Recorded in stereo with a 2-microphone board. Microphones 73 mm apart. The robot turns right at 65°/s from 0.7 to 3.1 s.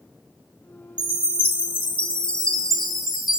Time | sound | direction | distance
1.0 | a chime | 20° left (ahead or behind) | 1.3 m